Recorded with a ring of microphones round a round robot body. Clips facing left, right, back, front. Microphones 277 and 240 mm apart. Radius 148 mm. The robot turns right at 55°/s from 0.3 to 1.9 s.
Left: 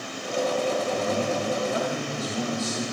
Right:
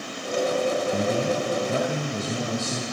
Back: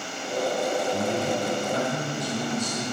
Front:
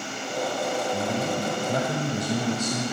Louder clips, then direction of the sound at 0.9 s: Right 2 dB, back 1 dB; 90° right.